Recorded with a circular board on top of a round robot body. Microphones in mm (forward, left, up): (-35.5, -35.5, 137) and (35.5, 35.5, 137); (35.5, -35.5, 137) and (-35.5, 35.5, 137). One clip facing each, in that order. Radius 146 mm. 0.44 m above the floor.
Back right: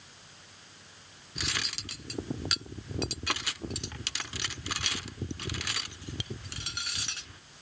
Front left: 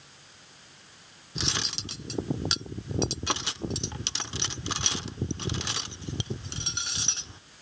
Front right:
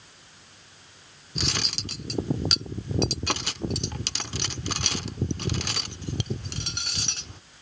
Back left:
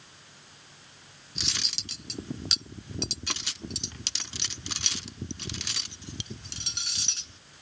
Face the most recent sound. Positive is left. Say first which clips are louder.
# front left 3 dB, front right 9 dB
turn(degrees=-20)